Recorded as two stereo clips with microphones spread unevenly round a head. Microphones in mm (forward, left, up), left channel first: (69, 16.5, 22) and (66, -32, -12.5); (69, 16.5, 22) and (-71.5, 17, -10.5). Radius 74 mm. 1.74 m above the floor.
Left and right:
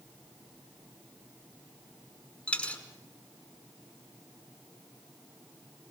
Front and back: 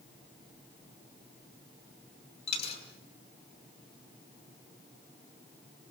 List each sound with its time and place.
2.5 s a dropped coin: 35° left, 5 m